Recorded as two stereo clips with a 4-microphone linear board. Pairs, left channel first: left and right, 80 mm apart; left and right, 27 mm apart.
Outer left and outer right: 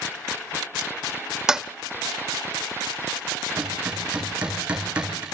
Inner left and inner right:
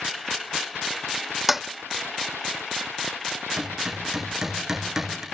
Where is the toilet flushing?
10° right (ahead or behind), 0.6 m.